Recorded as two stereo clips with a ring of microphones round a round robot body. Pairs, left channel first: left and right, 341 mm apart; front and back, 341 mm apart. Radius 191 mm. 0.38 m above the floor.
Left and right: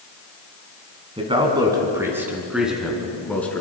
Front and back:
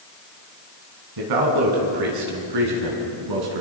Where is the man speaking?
165° right, 4.5 m; by 3.6 s 175° left, 6 m.